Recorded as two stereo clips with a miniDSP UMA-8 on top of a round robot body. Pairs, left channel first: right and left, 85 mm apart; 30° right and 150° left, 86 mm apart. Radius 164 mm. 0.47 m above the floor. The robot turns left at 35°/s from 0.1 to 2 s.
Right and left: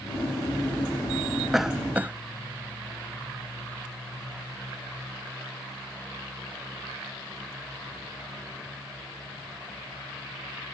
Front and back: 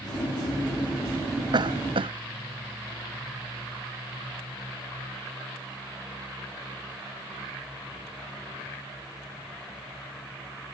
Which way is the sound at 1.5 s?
Straight behind.